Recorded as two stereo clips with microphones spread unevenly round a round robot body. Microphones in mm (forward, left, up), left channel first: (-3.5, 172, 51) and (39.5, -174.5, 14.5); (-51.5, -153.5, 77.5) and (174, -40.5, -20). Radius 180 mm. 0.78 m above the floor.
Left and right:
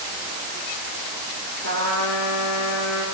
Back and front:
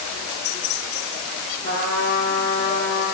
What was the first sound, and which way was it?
A trumpet, 145° left.